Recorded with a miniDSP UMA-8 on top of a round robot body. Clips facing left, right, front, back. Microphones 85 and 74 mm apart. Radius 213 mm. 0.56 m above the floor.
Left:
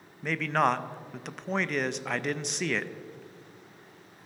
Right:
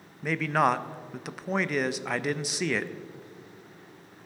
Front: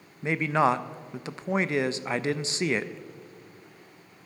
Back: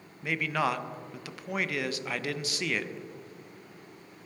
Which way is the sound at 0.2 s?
10° right.